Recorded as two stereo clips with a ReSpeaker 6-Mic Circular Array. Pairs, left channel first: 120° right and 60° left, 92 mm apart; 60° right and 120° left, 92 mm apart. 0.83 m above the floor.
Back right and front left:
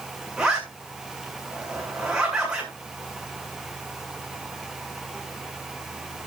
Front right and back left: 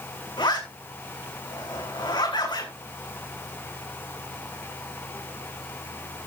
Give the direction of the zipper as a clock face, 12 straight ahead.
1 o'clock.